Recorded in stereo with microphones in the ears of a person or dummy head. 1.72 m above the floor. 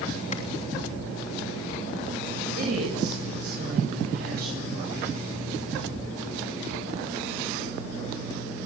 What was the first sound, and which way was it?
A clap, 45° left (ahead or behind).